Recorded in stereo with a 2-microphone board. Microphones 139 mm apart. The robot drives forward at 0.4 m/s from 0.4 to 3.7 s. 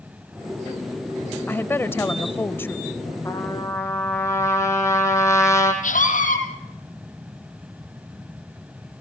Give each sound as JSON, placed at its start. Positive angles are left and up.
{"t": 1.5, "sound": "a woman speaking", "side_deg": 15, "distance_m": 0.9}
{"t": 3.2, "sound": "a trumpet", "side_deg": 20, "distance_m": 4.5}
{"t": 5.8, "sound": "a scream", "side_deg": 85, "distance_m": 7.5}